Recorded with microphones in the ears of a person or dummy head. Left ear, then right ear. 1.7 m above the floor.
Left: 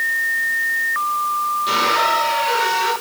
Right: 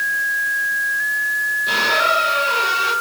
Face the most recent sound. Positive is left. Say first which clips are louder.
# even
turn(degrees=35)  # may be behind; listen again after turning